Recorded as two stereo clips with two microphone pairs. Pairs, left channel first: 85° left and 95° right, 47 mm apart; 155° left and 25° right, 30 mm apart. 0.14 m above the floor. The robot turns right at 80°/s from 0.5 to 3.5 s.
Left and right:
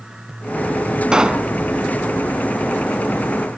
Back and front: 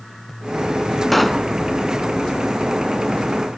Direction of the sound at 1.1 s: 125° right.